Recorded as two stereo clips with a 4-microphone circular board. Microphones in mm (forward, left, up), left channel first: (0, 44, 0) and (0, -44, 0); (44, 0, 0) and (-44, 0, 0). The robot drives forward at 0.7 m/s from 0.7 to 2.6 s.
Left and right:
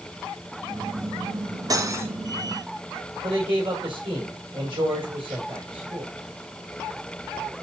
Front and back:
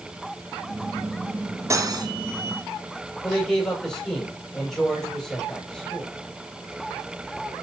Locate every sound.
1.7 s cutlery clinking: 130° right, 0.6 m; by 2.1 s 145° right, 0.8 m
3.2 s a man speaking: 85° right, 4.5 m